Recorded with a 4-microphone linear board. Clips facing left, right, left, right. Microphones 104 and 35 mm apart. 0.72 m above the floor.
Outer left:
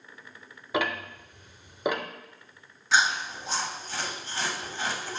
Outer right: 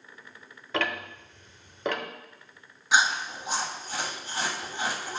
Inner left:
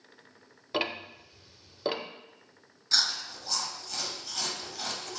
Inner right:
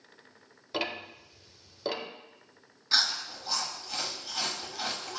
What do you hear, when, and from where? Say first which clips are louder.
0.7 s ticking: outer left 2 dB, inner left 2 dB; 15° left (ahead or behind), 0.7 m
2.9 s chewing: outer right 1 dB, inner right 1 dB; 15° right (ahead or behind), 1.3 m